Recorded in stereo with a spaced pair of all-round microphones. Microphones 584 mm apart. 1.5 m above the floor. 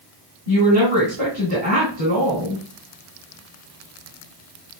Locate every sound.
0.5 s a woman speaking: 60° right (ahead or behind), 2.5 m